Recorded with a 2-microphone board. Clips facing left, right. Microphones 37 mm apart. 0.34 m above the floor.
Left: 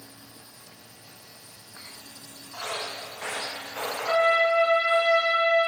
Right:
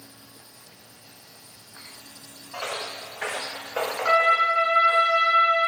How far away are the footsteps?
About 2.0 m.